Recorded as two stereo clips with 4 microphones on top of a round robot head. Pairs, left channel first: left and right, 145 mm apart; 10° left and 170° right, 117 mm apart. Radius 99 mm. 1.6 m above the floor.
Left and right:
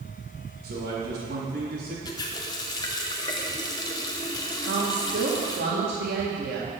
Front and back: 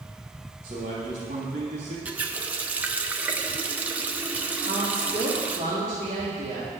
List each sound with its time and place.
0.6 s a man speaking: 110° right, 3.5 m; by 1.9 s 130° right, 3.5 m
2.0 s a running tap: 130° left, 0.6 m
4.6 s a woman speaking: 110° right, 2.0 m